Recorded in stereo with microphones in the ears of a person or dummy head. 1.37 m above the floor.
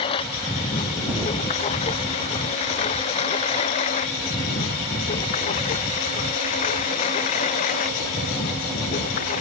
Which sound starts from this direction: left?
A lawn mower, at 0.0 s.